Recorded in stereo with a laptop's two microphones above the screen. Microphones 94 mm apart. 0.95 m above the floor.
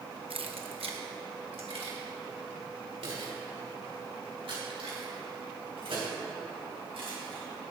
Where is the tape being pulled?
I don't hear tape being pulled.